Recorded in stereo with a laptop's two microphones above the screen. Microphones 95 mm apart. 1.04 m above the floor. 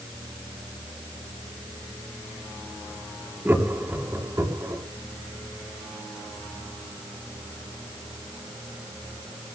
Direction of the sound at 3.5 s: 20° right (ahead or behind).